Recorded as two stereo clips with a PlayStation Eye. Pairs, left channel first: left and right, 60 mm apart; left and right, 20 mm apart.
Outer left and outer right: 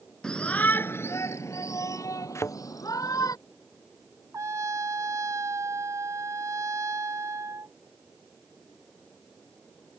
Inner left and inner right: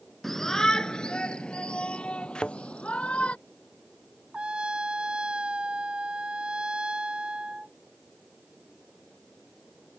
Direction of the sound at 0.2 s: 10° left (ahead or behind).